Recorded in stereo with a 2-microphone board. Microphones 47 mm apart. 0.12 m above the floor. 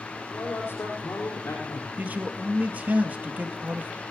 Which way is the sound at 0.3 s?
60° left (ahead or behind).